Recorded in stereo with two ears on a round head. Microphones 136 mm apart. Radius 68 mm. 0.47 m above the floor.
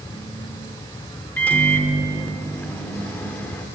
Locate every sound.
1.4 s a microwave: 10° left (ahead or behind), 0.8 m